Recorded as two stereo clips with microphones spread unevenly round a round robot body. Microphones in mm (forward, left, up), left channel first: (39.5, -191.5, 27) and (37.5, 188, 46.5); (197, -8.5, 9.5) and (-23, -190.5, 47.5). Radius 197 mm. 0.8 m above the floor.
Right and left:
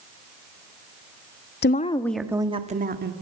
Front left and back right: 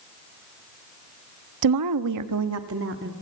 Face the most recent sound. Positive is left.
turn(degrees=155)